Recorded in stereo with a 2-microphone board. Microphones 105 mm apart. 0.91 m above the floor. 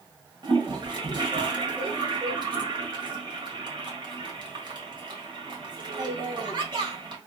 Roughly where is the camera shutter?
No camera shutter in this recording.